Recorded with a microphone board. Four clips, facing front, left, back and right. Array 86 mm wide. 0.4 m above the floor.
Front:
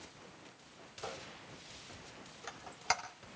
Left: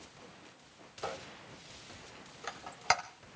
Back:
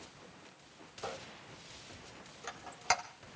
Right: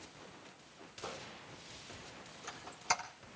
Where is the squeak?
95° left, 1.5 m.